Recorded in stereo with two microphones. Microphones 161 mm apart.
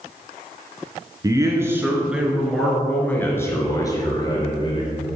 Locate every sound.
1.2 s a man speaking: 20° right (ahead or behind), 1.9 m; by 5.1 s 35° left (ahead or behind), 2.5 m